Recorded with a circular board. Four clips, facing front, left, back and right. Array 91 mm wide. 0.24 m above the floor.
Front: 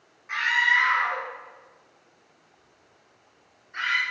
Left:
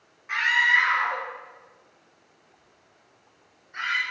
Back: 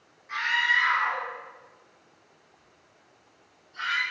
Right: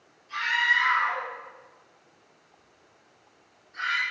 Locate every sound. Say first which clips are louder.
0.3 s a scream: left 3 dB, front 3 dB; 65° left, 5 m; by 4.0 s 30° left, 5.5 m